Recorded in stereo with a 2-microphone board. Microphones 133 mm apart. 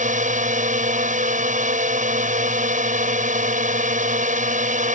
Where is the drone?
70° right (ahead or behind).